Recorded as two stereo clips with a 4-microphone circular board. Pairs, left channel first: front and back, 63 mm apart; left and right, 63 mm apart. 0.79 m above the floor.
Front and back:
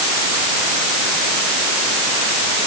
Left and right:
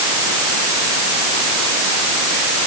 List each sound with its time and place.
Only background noise.